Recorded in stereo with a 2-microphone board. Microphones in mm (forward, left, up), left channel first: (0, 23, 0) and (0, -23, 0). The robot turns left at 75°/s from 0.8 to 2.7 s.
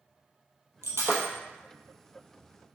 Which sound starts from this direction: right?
Breaking glass, at 0.8 s.